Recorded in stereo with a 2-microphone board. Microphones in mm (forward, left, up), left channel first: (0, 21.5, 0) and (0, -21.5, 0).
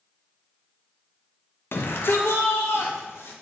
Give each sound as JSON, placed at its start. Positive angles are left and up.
{"t": 1.7, "sound": "a shout", "side_deg": 65, "distance_m": 1.0}